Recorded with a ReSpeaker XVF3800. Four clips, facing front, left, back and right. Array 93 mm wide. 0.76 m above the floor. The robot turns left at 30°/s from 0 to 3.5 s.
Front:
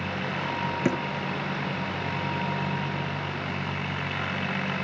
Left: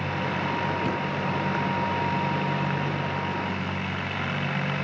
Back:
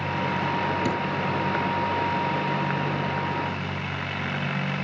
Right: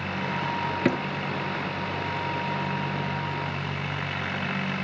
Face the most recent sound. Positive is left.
turn(degrees=-145)